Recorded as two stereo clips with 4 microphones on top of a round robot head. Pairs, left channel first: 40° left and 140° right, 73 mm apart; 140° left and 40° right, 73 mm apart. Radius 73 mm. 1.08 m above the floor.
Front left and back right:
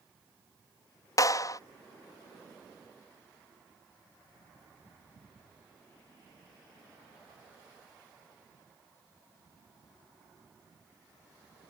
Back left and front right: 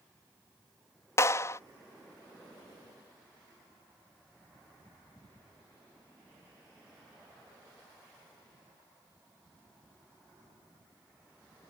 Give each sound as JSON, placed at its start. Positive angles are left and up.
{"t": 1.2, "sound": "a clap", "azimuth_deg": 85}